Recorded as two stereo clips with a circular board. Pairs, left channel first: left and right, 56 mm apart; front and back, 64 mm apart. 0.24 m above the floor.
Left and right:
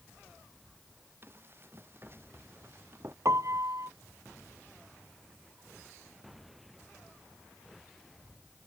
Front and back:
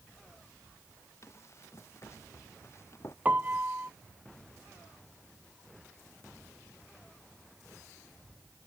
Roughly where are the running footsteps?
Ahead right.